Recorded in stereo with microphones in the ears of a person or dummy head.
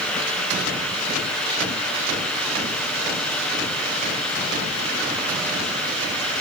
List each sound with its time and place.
Only background noise.